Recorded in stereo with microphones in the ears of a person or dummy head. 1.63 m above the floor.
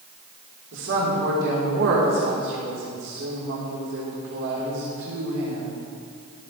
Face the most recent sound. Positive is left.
turn(degrees=-65)  # may be behind; listen again after turning